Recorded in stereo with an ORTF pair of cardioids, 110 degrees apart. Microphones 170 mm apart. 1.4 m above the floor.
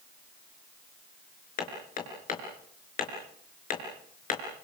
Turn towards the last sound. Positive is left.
turn(degrees=55)